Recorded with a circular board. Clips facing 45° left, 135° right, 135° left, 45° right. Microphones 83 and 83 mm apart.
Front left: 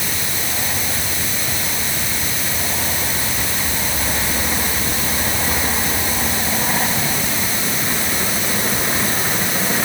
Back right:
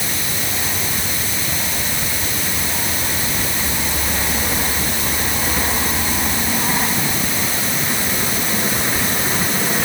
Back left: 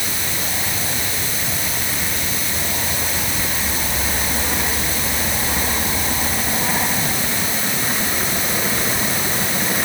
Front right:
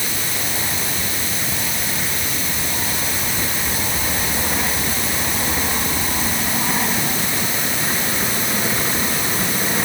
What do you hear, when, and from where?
Only background noise.